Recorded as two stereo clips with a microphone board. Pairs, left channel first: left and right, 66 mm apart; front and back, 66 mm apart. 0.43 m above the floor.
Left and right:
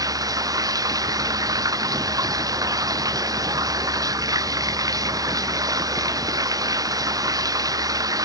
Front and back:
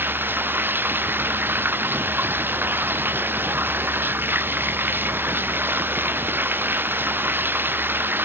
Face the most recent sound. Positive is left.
turn(degrees=-120)